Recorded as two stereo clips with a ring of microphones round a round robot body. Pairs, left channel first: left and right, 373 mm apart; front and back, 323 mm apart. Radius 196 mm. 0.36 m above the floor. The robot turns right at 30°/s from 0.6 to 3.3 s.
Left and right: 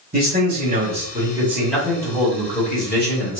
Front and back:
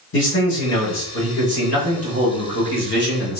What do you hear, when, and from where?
0.1 s a man speaking: 35° right, 1.8 m; by 3.4 s 45° left, 1.8 m